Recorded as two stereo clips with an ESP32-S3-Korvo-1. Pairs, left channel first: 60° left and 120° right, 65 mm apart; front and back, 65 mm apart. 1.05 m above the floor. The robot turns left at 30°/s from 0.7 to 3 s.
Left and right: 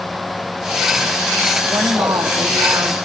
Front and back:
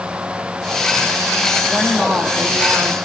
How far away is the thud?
I don't hear a thud.